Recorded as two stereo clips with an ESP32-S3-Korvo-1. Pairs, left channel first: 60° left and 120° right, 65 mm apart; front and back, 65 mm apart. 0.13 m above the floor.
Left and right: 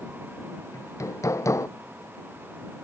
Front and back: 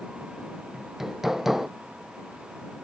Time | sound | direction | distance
0.7 | hammering | 95° left | ?